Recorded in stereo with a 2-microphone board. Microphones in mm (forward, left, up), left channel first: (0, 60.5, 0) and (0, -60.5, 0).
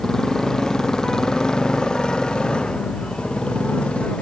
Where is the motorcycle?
5° left (ahead or behind); by 4.2 s 10° left (ahead or behind).